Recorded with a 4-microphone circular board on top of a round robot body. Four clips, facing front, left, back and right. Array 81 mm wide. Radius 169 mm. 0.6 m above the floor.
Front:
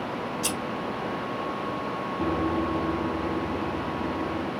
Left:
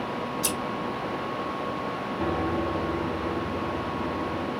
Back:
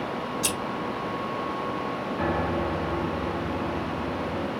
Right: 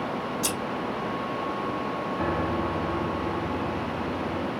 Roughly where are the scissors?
Behind.